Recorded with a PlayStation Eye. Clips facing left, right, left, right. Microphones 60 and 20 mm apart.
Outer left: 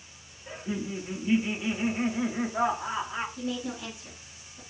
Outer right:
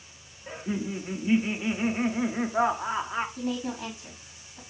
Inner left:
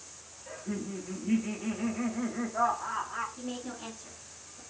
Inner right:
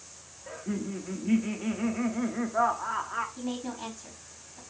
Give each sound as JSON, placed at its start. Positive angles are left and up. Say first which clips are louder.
{"t": 0.5, "sound": "laughter", "louder": "outer right 2 dB, inner right 3 dB", "side_deg": -20, "distance_m": 0.8}
{"t": 3.4, "sound": "a woman speaking", "louder": "outer right 2 dB, inner right 4 dB", "side_deg": -65, "distance_m": 3.5}